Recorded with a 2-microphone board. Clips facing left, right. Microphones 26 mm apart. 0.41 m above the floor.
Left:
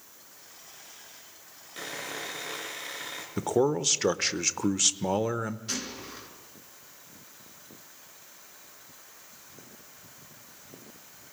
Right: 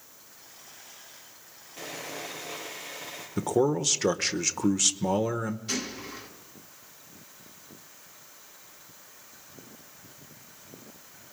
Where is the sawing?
75° left (ahead or behind), 6 m.